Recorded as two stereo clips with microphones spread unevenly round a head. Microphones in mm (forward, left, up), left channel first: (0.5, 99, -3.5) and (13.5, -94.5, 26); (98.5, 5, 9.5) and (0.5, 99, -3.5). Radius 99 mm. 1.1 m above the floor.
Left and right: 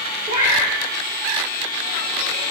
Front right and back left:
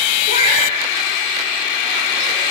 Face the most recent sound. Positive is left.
turn(degrees=-30)